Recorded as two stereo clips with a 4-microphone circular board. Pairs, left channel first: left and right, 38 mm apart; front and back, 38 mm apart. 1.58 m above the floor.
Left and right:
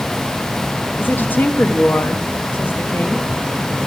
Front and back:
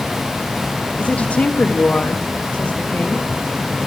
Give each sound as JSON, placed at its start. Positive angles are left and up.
{"t": 1.0, "sound": "a woman speaking", "azimuth_deg": 55, "distance_m": 1.2}